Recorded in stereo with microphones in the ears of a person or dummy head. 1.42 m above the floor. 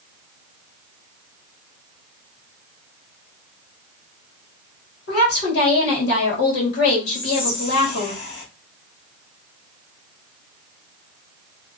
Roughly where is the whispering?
Left.